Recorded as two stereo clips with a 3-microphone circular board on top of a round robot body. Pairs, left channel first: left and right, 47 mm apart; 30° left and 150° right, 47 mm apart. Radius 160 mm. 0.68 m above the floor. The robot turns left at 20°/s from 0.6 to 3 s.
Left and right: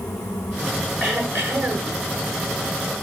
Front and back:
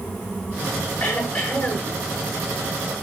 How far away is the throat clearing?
About 9 m.